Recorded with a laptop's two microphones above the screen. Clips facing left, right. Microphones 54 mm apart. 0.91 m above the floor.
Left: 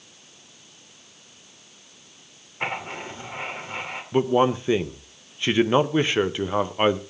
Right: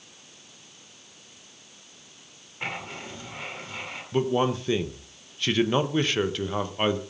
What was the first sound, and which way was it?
Writing, 30° left (ahead or behind).